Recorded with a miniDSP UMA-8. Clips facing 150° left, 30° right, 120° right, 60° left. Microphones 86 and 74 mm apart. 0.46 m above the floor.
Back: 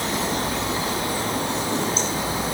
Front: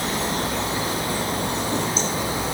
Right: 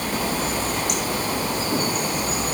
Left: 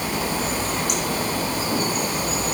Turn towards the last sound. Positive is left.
No sound to turn to.